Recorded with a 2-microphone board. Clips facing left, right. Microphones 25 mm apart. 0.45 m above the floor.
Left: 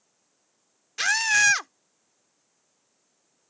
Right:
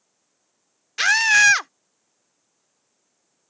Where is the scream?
25° right (ahead or behind).